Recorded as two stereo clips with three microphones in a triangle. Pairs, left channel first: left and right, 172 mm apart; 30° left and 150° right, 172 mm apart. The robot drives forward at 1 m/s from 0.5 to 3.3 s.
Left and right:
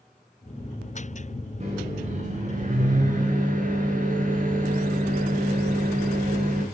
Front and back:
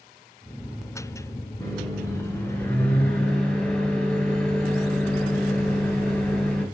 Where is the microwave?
40° right, 5.5 m; by 6.7 s 55° right, 4.5 m.